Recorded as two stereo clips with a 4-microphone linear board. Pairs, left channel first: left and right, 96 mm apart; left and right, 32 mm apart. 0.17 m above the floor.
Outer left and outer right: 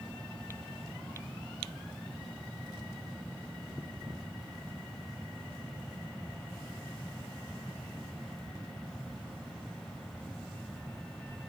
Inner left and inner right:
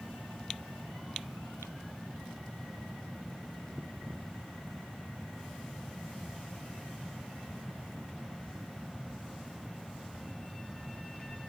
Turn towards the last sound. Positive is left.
No sound to turn to.